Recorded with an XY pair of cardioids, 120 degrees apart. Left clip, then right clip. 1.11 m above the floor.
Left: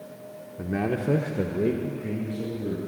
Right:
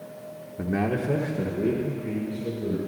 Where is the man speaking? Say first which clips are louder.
Right 1 dB; 15° right, 0.6 m; by 2.8 s 65° left, 2 m.